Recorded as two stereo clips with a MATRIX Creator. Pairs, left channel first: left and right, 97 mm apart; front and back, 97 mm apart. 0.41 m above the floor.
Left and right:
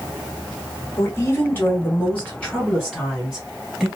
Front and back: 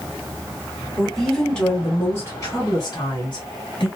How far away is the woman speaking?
About 1.3 m.